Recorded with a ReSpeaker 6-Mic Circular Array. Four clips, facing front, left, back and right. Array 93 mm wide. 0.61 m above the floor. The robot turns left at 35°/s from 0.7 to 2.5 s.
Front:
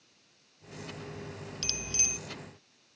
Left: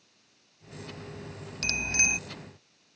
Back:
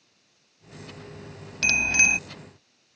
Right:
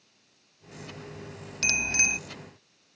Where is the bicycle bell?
165° right; by 2.2 s 175° left.